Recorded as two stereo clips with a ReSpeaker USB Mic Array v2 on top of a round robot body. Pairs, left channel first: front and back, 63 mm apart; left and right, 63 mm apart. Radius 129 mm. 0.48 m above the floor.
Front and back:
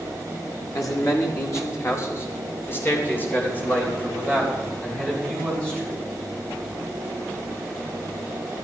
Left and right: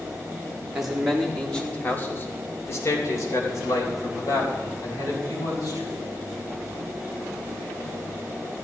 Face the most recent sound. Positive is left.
turn(degrees=70)